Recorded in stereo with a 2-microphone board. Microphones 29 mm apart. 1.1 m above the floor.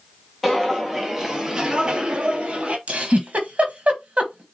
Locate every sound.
0.4 s footsteps: 5° right (ahead or behind), 1.5 m; by 2.8 s 40° right (ahead or behind), 1.4 m
2.9 s a giggle: 45° right (ahead or behind), 1.1 m